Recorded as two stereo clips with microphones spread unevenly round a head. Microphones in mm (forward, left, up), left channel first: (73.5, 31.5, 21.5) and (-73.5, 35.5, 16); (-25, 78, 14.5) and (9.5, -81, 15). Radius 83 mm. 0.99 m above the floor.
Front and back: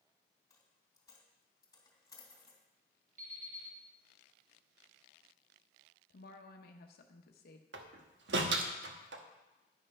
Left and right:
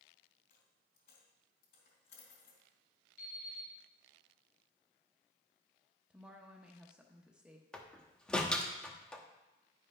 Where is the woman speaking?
5° left, 0.9 m.